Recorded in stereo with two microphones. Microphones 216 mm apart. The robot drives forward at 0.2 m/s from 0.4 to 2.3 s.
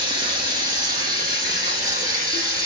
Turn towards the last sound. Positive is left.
turn(degrees=-15)  # may be behind; listen again after turning